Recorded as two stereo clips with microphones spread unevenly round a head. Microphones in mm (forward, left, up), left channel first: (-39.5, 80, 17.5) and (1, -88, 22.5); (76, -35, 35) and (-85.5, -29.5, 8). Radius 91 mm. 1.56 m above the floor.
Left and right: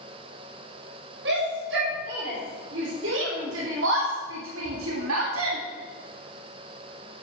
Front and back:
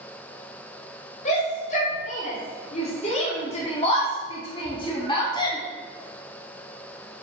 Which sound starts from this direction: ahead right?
A shout, at 1.2 s.